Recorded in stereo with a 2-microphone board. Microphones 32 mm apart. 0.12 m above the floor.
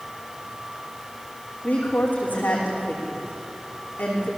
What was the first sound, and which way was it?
A woman speaking, 65° left (ahead or behind).